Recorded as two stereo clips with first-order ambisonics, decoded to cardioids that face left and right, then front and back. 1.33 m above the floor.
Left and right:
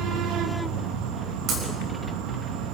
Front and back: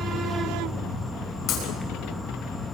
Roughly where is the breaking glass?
Ahead right.